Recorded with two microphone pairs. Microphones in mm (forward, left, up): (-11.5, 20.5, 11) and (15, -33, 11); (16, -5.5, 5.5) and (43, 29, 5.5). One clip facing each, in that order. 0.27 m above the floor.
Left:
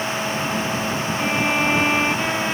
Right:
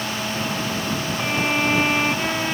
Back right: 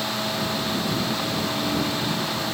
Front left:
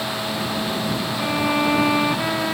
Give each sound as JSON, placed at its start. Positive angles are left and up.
{"t": 1.2, "sound": "a violin", "azimuth_deg": 30}